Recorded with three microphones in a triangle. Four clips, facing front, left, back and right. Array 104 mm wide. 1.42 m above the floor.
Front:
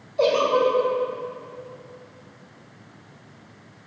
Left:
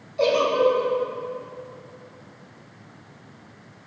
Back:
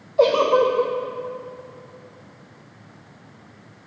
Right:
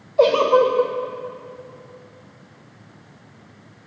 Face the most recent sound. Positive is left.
turn(degrees=-120)